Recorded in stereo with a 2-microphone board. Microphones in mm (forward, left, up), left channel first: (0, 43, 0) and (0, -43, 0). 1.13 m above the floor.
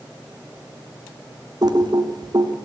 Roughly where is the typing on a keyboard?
Right.